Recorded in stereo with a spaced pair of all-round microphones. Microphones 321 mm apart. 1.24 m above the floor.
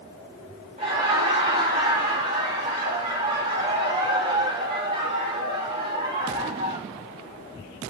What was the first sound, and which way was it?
Laughter, 25° right (ahead or behind).